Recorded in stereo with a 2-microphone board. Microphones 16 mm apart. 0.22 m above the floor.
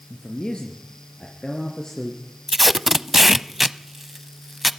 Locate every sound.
0.1 s a man speaking: 75° left (ahead or behind), 4 m; by 2.2 s 40° left (ahead or behind), 4 m
2.5 s tape being pulled: 10° right (ahead or behind), 0.8 m